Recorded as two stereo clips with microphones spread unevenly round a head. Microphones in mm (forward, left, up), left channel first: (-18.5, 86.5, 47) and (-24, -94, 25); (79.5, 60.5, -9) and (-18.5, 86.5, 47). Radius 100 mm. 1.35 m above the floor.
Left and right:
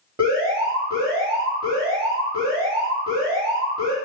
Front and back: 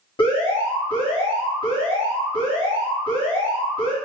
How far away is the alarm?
About 1.4 m.